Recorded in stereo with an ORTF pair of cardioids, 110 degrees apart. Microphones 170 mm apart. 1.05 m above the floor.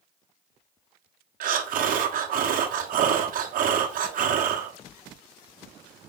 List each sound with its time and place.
1.4 s breathing: 55° right, 1.2 m